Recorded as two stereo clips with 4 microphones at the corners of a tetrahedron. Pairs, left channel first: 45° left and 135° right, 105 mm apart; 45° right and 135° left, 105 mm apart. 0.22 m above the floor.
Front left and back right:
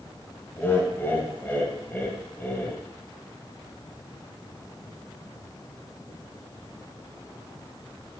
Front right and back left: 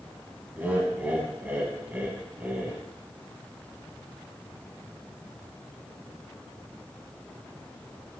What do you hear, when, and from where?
0.6 s laughter: 85° left, 1.2 m